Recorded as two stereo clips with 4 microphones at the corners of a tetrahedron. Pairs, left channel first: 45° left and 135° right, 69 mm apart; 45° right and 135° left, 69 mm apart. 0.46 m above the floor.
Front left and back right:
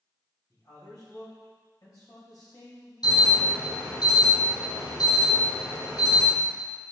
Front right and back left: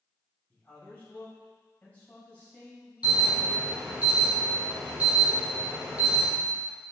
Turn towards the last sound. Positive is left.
turn(degrees=65)